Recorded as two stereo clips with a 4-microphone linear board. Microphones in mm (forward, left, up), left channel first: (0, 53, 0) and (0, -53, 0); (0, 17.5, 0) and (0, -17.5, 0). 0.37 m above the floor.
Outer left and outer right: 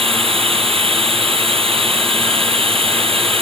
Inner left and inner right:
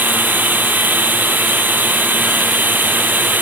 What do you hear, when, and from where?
0.0 s running water: 60° right (ahead or behind)